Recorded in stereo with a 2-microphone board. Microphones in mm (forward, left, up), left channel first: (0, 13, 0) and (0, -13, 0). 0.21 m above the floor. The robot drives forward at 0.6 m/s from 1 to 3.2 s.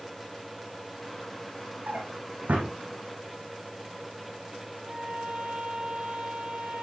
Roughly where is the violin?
Right.